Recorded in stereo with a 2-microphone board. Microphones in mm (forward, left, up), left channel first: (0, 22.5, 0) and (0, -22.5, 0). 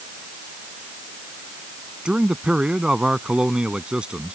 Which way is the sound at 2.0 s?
20° right (ahead or behind).